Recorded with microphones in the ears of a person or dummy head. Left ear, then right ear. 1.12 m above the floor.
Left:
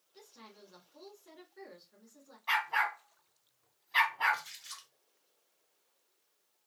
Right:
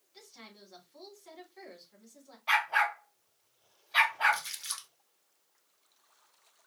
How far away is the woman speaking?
About 3 m.